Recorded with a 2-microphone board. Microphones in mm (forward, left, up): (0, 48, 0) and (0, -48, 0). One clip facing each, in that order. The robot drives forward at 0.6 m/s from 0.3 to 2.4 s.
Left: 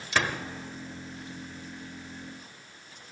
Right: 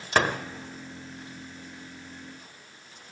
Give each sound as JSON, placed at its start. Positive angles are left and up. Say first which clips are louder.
{"t": 0.1, "sound": "a door slam", "louder": "right 4 dB", "side_deg": -50, "distance_m": 1.1}